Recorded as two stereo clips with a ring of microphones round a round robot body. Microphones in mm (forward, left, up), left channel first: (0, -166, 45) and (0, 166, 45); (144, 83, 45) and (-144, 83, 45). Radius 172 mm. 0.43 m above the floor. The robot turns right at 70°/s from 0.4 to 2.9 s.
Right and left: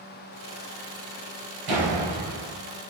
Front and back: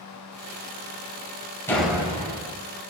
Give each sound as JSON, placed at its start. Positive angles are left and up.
{"t": 1.7, "sound": "a door slam", "azimuth_deg": 80, "distance_m": 2.0}